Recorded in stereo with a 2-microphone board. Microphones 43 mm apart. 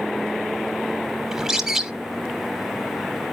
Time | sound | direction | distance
1.3 | a bird | 10° right (ahead or behind) | 1.2 m